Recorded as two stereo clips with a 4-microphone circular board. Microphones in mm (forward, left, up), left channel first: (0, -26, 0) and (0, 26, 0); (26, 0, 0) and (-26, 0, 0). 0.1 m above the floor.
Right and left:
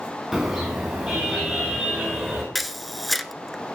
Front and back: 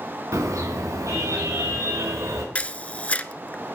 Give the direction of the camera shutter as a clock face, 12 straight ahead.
12 o'clock.